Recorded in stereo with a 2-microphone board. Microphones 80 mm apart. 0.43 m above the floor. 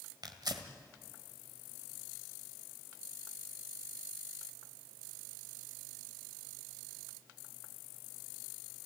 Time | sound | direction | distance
0.2 | tearing paper | 60° right (ahead or behind) | 1.9 m